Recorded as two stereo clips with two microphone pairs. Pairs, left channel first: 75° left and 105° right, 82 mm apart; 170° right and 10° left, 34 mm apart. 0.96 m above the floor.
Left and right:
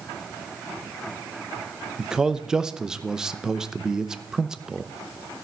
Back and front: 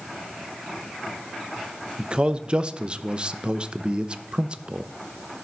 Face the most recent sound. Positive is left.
turn(degrees=-30)